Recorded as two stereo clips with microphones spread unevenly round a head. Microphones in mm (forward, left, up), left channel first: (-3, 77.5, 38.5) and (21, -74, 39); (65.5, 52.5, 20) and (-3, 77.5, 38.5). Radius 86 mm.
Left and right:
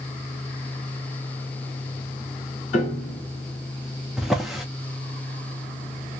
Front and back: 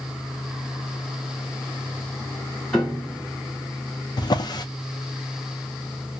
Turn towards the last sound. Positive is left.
turn(degrees=5)